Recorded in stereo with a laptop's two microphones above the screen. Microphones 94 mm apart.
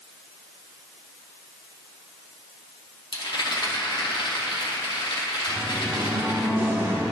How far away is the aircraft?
I don't hear an aircraft.